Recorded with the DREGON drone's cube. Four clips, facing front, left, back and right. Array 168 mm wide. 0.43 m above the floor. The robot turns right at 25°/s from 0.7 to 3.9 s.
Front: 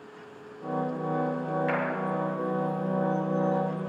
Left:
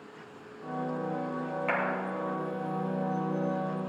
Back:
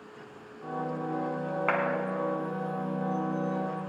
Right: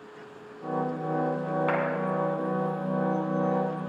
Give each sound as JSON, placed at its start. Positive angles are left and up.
{"t": 1.7, "sound": "a clap", "azimuth_deg": -165, "distance_m": 3.0}